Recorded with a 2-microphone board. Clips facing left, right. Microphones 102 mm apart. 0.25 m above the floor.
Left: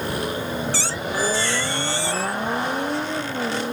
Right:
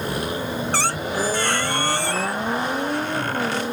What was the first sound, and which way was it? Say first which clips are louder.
A squeak: right 2 dB; 55° right (ahead or behind).